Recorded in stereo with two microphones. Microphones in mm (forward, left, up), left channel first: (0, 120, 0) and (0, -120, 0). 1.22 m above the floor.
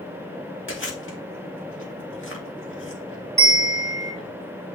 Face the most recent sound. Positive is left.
turn(degrees=-30)  # may be behind; listen again after turning